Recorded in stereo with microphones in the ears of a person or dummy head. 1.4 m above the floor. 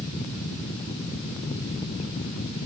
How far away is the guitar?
I don't hear a guitar.